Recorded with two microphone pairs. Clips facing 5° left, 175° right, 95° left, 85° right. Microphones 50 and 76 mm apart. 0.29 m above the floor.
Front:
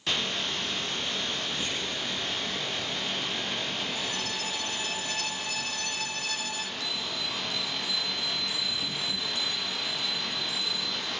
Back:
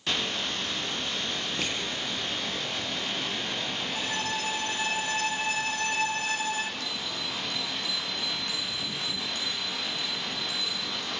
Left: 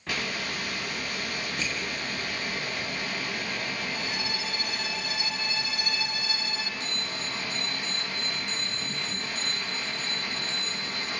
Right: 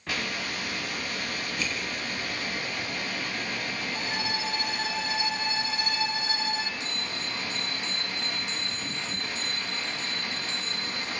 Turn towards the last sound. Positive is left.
turn(degrees=140)